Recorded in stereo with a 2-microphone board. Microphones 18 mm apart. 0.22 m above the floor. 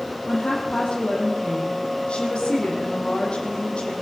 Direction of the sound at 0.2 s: 70° left (ahead or behind).